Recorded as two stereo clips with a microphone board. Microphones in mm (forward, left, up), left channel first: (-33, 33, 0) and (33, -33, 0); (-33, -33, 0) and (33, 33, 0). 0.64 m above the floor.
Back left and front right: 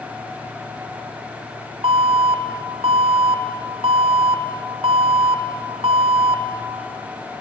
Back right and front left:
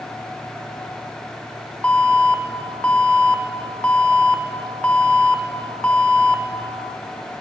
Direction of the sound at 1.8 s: 60° right.